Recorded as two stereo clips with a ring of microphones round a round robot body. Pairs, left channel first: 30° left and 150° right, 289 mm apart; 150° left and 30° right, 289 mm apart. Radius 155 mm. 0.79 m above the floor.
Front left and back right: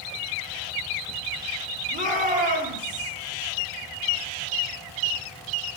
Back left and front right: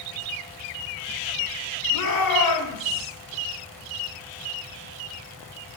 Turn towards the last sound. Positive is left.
turn(degrees=145)